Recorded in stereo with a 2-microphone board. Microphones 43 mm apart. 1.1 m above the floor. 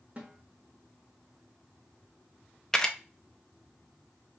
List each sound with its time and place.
0.2 s a snare drum: 35° right (ahead or behind), 1.2 m
2.7 s a camera shutter: 15° left (ahead or behind), 0.5 m